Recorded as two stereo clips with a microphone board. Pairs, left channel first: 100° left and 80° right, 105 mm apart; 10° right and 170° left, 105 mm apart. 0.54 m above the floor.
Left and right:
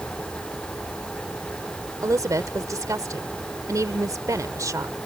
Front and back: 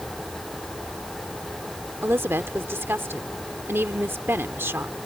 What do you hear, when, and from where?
2.0 s a woman speaking: 125° right